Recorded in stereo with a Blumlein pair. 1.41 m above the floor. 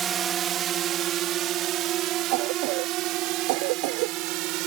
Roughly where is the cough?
Ahead right.